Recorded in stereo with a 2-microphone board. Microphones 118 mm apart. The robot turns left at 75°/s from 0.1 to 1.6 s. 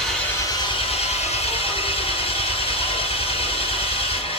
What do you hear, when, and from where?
0.0 s an engine running: 175° left, 3 m; by 4.4 s 65° left, 3 m